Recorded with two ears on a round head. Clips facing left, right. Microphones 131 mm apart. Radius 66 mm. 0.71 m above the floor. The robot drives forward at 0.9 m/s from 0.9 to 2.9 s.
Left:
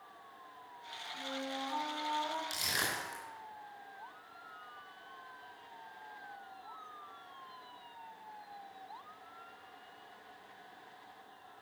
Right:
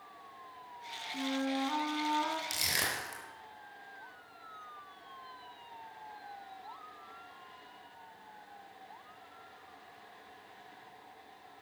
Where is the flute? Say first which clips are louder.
Right 8 dB; 60° right (ahead or behind), 1.5 m.